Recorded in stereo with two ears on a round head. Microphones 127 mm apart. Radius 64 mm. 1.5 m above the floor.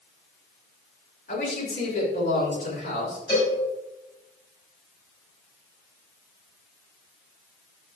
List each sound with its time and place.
1.3 s a man speaking: 55° left (ahead or behind), 6.5 m
3.3 s a cowbell: 30° left (ahead or behind), 6.5 m